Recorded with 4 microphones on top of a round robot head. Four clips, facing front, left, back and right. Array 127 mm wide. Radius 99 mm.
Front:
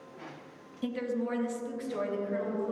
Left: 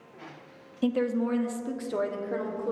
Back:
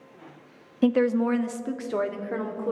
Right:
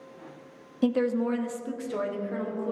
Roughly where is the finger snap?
I don't hear a finger snap.